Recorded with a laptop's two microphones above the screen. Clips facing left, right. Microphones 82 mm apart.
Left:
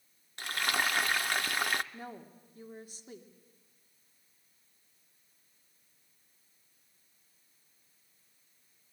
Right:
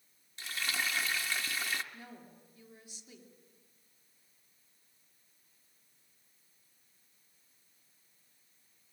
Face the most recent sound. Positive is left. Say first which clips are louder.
# left 6 dB
turn(degrees=40)  # may be behind; listen again after turning